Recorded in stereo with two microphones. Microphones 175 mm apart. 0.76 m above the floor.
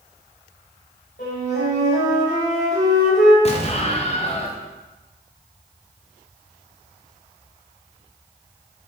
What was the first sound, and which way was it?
A flute, 85° left.